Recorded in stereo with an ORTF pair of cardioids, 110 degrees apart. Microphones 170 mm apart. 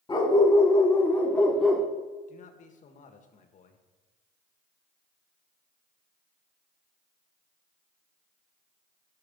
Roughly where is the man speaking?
Ahead left.